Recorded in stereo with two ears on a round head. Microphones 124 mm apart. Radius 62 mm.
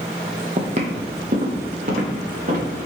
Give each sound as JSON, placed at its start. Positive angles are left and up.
{"t": 0.6, "sound": "footsteps", "side_deg": -50, "distance_m": 0.6}